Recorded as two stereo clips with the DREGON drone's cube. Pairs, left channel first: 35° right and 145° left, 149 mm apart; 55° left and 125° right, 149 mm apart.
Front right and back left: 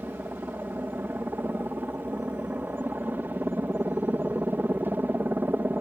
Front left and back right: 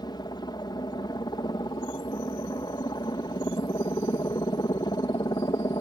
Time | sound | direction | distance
0.0 | a helicopter | 80° left | ?